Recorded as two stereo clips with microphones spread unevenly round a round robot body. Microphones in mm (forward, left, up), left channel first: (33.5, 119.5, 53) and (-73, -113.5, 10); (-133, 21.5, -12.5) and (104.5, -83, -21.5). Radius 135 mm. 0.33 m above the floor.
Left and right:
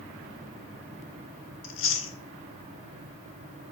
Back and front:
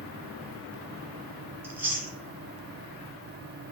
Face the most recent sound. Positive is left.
turn(degrees=50)